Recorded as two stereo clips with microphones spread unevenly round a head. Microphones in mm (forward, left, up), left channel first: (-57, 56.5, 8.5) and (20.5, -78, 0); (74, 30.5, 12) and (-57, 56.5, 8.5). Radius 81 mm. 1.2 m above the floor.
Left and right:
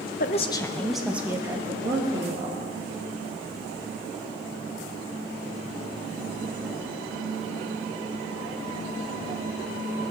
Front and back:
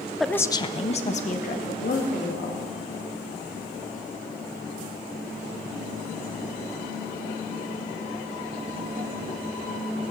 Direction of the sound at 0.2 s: 80° left.